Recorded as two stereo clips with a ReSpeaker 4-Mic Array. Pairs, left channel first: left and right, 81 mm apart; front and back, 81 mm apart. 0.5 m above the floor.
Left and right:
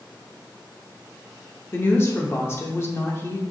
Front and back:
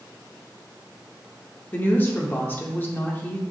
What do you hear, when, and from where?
1.7 s a woman speaking: 50° left, 0.9 m